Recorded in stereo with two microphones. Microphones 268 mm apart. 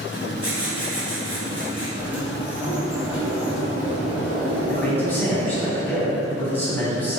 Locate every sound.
0.1 s writing: 45° right (ahead or behind), 1.6 m
2.0 s a sliding door: 5° right (ahead or behind), 1.3 m
4.7 s a man speaking: 5° left (ahead or behind), 1.7 m